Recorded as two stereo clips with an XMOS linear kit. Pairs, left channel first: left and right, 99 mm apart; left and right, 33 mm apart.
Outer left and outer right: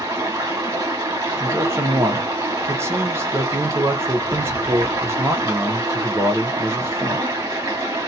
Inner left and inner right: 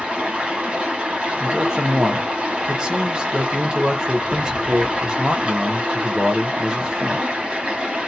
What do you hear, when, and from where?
0.0 s running water: 35° right (ahead or behind), 1.5 m
1.4 s a man speaking: 25° right (ahead or behind), 0.7 m